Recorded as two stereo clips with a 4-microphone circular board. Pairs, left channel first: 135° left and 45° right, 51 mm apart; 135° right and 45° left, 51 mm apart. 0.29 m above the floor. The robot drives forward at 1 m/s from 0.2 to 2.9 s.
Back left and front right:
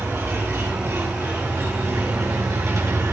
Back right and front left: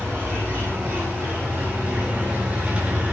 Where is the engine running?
10° right, 5 m; by 3.1 s 20° right, 2.5 m.